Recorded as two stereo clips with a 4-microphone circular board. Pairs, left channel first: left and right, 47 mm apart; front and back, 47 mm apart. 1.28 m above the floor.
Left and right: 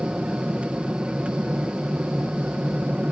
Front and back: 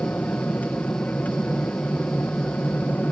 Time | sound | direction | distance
0.0 | an aircraft | 35° right | ?